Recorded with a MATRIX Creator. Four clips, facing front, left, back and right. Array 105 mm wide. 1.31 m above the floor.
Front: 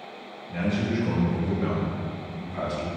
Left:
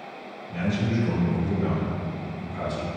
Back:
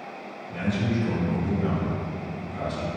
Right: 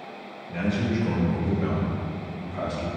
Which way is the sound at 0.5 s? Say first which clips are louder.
Even, even; 55° right.